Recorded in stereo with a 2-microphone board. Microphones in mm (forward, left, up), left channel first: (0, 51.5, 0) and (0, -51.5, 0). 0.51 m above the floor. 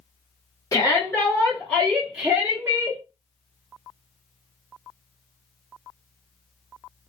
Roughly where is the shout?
Left.